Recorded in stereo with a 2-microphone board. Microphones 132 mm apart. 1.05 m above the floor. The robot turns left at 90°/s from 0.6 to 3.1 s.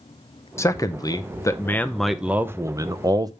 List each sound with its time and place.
0.6 s a man speaking: 20° left (ahead or behind), 0.6 m; by 3.3 s 30° right (ahead or behind), 0.6 m